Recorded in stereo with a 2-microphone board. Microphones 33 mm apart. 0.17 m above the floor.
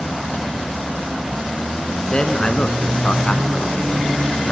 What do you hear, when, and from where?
2.1 s a man speaking: 30° left (ahead or behind), 1.6 m; by 4.5 s 25° left (ahead or behind), 1.5 m